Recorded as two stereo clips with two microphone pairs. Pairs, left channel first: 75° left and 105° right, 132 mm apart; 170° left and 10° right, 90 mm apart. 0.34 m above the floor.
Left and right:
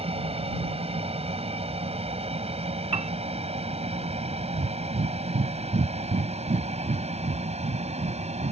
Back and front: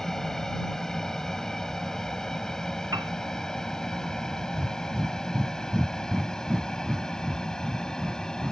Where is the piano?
60° right.